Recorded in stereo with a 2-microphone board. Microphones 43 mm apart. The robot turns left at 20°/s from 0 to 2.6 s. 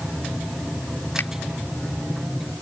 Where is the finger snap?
60° left (ahead or behind); by 1.3 s 65° left (ahead or behind).